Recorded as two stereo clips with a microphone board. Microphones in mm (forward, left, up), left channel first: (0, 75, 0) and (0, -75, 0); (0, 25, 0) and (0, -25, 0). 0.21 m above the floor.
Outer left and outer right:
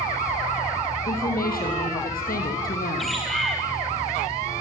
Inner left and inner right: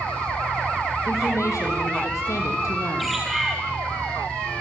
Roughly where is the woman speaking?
Left.